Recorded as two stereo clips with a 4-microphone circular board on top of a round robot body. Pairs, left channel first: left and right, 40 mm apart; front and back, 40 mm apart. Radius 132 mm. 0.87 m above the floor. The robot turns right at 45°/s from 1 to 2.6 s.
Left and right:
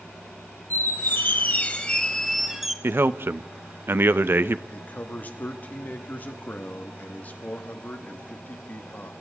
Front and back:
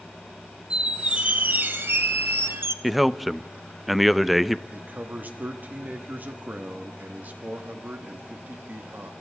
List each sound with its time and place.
0.7 s a squeak: 115° left, 1.2 m; by 2.7 s 175° right, 1.2 m
2.8 s a man speaking: 90° right, 0.8 m
4.7 s a man speaking: 135° left, 1.5 m